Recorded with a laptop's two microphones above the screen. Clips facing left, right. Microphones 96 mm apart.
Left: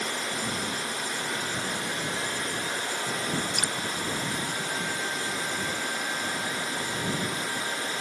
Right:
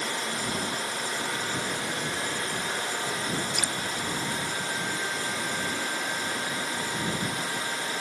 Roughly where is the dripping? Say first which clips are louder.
Even; left.